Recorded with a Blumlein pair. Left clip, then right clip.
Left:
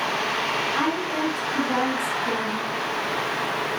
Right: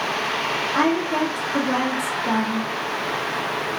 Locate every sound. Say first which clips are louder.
0.7 s a woman speaking: right 4 dB; 25° right, 1.8 m